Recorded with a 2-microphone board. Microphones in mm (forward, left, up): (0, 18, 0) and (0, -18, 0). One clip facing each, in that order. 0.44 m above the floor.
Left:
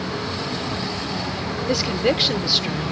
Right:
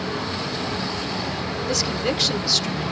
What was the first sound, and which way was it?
A woman speaking, 20° left (ahead or behind).